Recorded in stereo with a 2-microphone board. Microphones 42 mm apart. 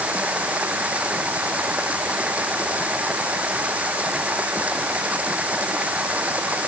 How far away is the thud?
I don't hear a thud.